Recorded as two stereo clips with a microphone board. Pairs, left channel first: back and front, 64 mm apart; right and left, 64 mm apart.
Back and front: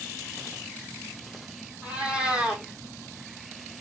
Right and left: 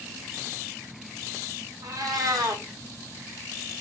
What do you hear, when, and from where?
1.8 s a cat meowing: 75° left, 1.3 m